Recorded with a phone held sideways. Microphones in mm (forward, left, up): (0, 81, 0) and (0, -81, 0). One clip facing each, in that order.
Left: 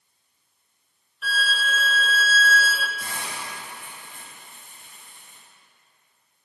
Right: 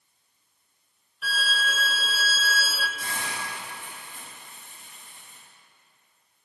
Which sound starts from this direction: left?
A hiss, at 3.0 s.